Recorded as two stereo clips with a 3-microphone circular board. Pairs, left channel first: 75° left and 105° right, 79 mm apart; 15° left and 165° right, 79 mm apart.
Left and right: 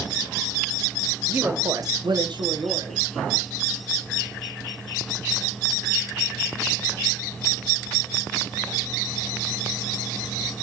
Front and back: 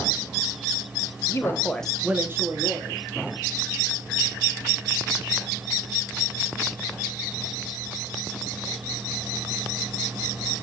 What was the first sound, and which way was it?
A woman speaking, 35° right.